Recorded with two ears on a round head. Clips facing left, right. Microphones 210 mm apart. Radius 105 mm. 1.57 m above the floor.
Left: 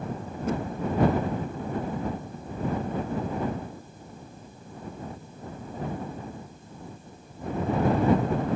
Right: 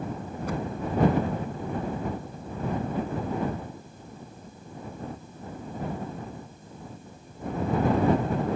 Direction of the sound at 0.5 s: 20° left (ahead or behind).